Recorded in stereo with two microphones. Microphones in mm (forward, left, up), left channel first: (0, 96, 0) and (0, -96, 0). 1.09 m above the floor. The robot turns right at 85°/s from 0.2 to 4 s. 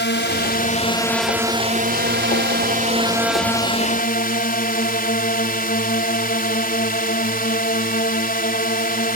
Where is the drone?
90° left; by 9.2 s 55° left.